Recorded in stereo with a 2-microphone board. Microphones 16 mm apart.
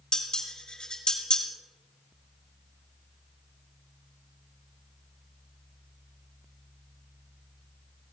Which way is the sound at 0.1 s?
50° left (ahead or behind).